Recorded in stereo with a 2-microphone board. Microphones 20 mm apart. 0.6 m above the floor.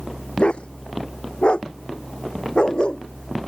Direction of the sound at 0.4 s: 60° left (ahead or behind).